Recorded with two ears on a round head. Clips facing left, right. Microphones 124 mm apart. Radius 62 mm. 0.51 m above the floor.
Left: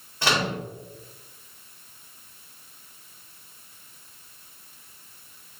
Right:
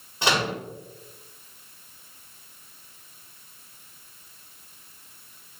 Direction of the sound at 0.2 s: 15° right (ahead or behind).